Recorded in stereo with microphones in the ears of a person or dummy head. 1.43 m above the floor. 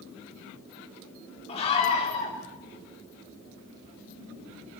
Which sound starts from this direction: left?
A scream, at 1.5 s.